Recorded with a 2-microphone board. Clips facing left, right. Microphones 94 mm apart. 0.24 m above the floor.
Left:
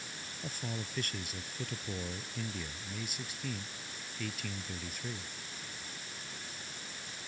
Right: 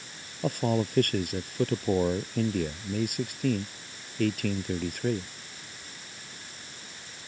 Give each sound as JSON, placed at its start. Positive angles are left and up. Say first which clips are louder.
{"t": 0.4, "sound": "a man speaking", "louder": "right 16 dB", "side_deg": -60}